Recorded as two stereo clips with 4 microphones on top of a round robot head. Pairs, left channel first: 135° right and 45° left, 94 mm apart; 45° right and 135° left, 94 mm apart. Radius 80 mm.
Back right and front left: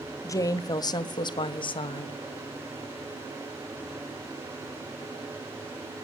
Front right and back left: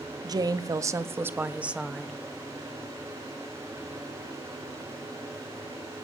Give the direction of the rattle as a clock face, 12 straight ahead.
I don't hear a rattle.